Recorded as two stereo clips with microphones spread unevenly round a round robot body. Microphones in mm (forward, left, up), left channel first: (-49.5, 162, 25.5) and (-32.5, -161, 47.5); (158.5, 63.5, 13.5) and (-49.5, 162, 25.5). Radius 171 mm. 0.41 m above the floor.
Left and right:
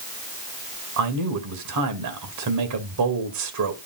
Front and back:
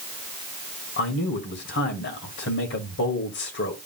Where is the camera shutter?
I don't hear a camera shutter.